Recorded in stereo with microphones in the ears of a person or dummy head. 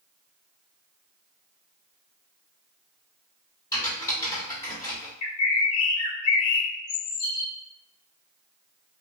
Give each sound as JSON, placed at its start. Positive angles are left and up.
{"t": 3.7, "sound": "typing on a keyboard", "side_deg": 20, "distance_m": 1.6}
{"t": 5.2, "sound": "a bird", "side_deg": 85, "distance_m": 0.8}